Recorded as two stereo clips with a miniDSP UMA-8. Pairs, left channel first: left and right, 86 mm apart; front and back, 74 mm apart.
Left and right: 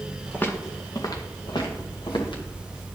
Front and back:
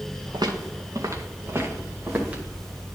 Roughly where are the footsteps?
Behind.